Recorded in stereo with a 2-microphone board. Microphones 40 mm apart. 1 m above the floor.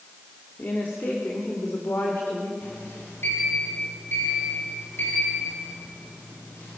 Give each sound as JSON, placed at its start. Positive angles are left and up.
{"t": 0.6, "sound": "a woman speaking", "side_deg": 65, "distance_m": 2.5}
{"t": 2.6, "sound": "a sliding door", "side_deg": 70, "distance_m": 8.0}